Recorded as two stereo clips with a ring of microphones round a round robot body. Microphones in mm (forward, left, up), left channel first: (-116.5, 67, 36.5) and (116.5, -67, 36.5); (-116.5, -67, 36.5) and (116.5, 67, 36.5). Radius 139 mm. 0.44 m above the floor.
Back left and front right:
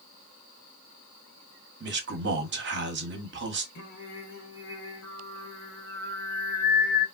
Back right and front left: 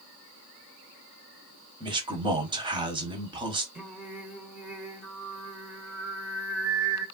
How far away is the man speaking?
About 1.0 m.